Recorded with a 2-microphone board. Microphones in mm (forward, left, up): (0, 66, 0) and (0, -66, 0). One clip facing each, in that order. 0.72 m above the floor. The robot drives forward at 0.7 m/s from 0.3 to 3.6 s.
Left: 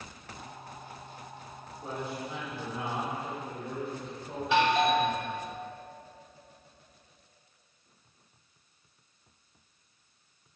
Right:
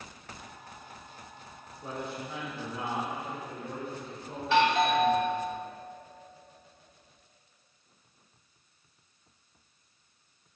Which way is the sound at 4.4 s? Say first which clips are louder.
Right 1 dB; 15° left (ahead or behind).